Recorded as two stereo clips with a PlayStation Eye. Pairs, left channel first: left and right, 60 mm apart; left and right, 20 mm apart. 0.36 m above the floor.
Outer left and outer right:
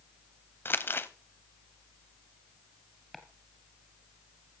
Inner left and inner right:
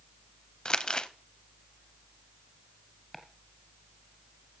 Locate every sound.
0.7 s crumpling: 40° left (ahead or behind), 0.8 m
3.1 s chopping: centre (ahead or behind), 1.9 m